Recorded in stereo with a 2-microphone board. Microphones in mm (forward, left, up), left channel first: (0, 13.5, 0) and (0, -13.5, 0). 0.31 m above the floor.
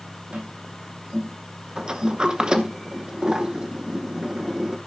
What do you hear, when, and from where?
0.3 s tapping: 70° right (ahead or behind), 5 m
1.8 s a sliding door: 30° right (ahead or behind), 0.8 m